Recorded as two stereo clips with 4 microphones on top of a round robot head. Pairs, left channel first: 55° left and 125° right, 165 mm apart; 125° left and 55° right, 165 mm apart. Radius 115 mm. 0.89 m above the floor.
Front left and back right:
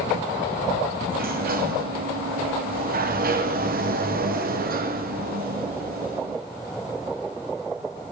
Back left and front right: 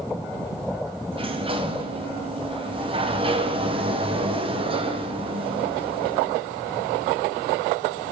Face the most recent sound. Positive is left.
turn(degrees=-110)